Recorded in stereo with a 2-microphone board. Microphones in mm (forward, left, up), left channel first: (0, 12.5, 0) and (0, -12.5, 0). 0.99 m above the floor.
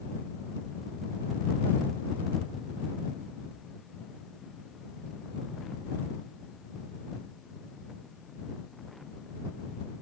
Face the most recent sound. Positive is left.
No sound to turn to.